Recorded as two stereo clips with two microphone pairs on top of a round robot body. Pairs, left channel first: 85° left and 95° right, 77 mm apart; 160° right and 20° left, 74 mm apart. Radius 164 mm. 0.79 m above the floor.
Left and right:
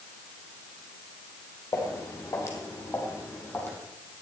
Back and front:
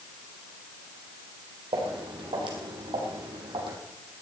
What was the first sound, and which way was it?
Footsteps, 35° left.